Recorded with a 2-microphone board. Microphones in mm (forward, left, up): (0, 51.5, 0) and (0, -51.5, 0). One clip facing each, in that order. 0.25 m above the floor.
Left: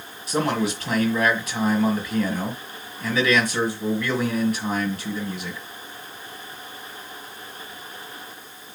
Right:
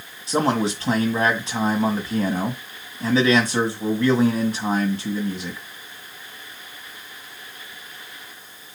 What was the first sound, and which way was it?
A man speaking, 25° right (ahead or behind).